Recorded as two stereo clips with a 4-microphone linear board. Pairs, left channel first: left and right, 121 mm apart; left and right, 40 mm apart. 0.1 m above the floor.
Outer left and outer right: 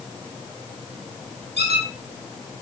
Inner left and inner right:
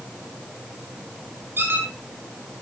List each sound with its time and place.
1.6 s a squeak: 65° right (ahead or behind), 5.5 m